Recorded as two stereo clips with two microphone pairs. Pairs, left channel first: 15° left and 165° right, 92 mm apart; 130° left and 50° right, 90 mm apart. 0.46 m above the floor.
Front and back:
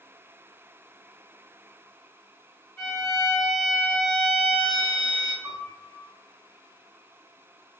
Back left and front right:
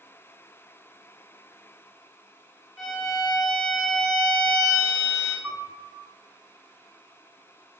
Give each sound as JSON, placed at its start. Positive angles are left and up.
{"t": 2.8, "sound": "a violin", "azimuth_deg": 40, "distance_m": 1.2}
{"t": 5.4, "sound": "a piano", "azimuth_deg": -155, "distance_m": 1.5}